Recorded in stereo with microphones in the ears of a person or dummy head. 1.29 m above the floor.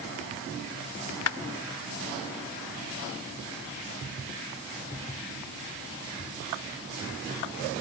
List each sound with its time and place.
1.3 s a clap: 85° left